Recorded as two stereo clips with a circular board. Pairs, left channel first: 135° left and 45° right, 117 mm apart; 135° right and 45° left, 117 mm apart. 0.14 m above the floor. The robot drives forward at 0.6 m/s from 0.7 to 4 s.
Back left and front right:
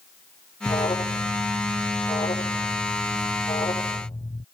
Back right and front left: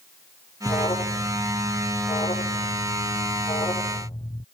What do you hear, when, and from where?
0.7 s an alarm: straight behind